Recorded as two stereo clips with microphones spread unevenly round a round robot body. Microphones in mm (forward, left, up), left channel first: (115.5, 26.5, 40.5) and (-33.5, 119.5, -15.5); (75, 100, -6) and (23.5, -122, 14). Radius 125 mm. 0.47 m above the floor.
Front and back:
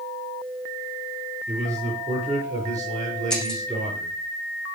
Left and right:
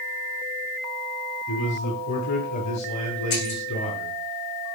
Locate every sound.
1.5 s a man speaking: 80° left, 7.5 m
3.3 s breaking glass: 55° left, 6.5 m